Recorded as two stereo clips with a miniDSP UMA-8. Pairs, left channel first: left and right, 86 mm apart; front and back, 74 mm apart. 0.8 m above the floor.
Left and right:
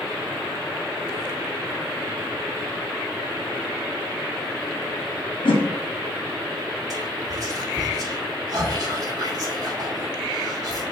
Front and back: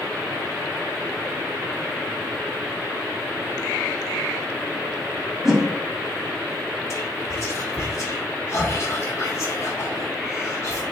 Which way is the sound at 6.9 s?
45° right.